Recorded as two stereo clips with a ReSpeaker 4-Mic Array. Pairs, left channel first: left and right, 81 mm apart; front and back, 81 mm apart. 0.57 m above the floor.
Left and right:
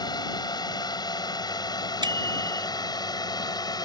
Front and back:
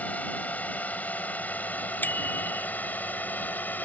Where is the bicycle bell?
65° right.